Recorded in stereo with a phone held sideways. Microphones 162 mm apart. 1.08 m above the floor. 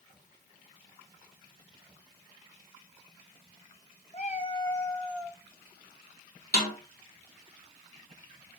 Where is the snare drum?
70° left (ahead or behind), 2.5 m.